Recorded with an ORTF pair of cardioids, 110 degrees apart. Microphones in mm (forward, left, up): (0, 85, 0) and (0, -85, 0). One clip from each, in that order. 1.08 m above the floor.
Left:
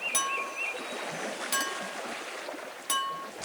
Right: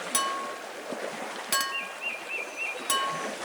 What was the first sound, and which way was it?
A clink, 15° right.